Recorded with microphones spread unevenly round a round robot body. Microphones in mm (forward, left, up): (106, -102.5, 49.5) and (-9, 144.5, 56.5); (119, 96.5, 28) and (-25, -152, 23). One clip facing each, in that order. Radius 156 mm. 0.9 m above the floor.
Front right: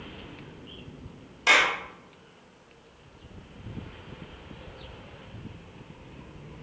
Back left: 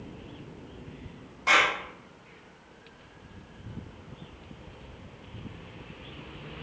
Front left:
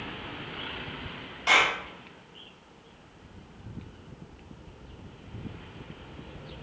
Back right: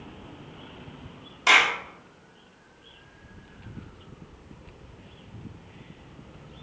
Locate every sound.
1.5 s a clap: 110° right, 1.1 m